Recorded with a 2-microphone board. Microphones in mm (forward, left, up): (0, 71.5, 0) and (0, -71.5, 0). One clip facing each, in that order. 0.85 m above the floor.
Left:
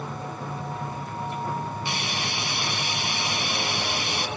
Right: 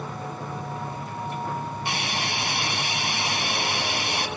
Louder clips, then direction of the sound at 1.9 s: Right 1 dB; 60° right (ahead or behind).